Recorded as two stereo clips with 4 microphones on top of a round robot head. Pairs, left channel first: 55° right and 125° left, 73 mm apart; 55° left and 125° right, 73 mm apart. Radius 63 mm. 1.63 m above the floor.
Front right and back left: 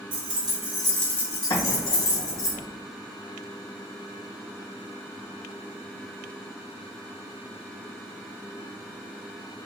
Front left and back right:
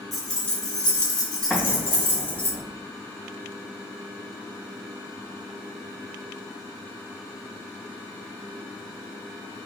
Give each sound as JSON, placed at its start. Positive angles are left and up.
{"t": 0.1, "sound": "keys jangling", "azimuth_deg": 145, "distance_m": 0.8}
{"t": 1.5, "sound": "an explosion", "azimuth_deg": -25, "distance_m": 1.8}